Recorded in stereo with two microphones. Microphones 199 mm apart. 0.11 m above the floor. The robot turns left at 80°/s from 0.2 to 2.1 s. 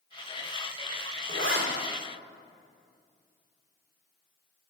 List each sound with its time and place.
1.3 s a zipper: 80° right, 3.5 m; by 1.6 s 65° right (ahead or behind), 3.5 m